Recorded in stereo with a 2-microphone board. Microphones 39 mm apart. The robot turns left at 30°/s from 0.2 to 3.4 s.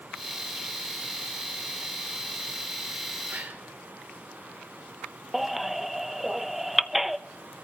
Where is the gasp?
45° right (ahead or behind), 3.5 m.